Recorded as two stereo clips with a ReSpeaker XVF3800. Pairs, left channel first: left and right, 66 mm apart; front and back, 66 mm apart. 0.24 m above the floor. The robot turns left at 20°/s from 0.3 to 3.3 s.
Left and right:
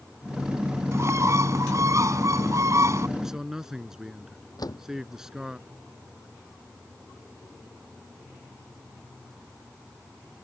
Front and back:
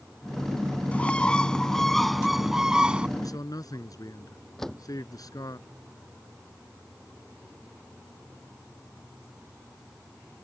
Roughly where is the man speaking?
Ahead.